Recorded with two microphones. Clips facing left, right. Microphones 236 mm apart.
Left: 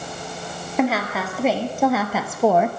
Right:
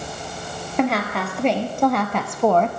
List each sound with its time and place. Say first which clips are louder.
0.8 s a woman speaking: even; 5° left (ahead or behind), 2.0 m; by 2.7 s 10° left (ahead or behind), 0.8 m